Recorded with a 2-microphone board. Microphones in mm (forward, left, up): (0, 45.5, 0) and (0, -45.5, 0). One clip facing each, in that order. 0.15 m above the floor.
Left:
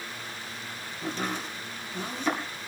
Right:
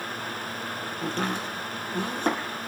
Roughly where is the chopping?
Right.